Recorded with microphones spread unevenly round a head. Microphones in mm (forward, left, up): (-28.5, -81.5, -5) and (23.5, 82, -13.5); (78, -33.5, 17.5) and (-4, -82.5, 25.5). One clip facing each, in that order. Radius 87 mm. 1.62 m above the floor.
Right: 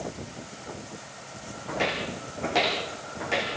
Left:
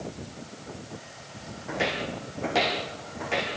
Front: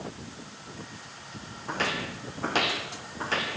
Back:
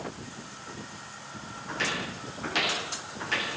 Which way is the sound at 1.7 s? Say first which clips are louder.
Even, front 2 dB; 10° right.